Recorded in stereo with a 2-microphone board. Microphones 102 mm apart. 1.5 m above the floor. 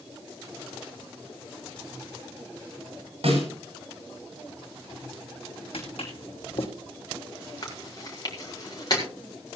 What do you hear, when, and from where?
3.2 s a snare drum: 70° right (ahead or behind), 6 m
5.7 s footsteps: 65° left (ahead or behind), 3 m
7.6 s chewing: 40° left (ahead or behind), 4.5 m